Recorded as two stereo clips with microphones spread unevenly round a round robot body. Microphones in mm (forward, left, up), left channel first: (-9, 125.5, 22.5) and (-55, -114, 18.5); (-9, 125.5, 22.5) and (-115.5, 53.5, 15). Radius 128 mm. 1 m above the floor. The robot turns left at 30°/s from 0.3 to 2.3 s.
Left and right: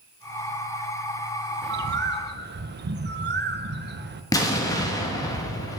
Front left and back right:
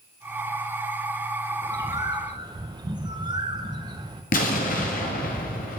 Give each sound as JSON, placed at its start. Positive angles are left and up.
{"t": 1.6, "sound": "a bird", "azimuth_deg": -95, "distance_m": 0.6}
{"t": 4.3, "sound": "an explosion", "azimuth_deg": 0, "distance_m": 1.0}